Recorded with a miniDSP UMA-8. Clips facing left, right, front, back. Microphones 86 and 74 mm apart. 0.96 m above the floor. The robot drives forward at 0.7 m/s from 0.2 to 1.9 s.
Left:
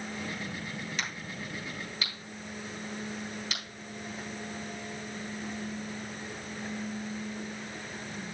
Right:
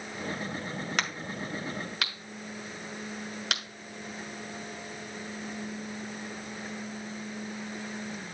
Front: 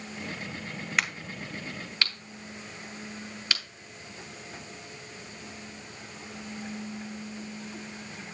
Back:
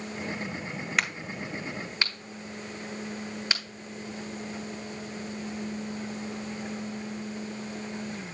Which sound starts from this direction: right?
A crack, at 1.0 s.